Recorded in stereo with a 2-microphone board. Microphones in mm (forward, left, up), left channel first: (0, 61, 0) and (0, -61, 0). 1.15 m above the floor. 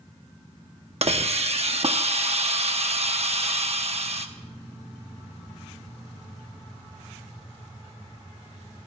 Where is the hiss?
60° right (ahead or behind), 0.8 m.